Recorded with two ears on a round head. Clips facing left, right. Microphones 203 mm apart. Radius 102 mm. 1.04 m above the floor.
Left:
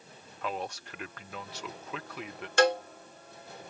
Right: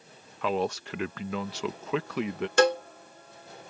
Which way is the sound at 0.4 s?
60° right (ahead or behind).